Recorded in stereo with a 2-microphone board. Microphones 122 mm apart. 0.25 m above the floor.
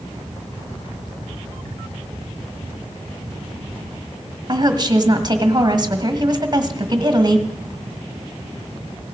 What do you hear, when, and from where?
4.5 s a woman speaking: 35° right (ahead or behind), 1.6 m